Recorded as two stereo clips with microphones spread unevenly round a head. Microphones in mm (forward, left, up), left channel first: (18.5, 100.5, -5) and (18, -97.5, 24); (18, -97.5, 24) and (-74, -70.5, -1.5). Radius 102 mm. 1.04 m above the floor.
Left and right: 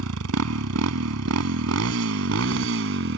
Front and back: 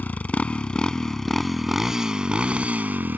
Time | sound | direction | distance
0.0 | a motorcycle | 85° right | ?